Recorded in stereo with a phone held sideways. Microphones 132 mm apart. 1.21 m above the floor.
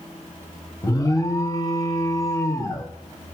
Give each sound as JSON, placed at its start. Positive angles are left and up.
{"t": 0.8, "sound": "an alarm", "side_deg": 25, "distance_m": 1.5}